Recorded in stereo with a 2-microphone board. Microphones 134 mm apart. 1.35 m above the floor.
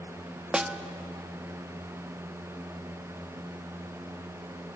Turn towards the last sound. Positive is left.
turn(degrees=-5)  # may be behind; listen again after turning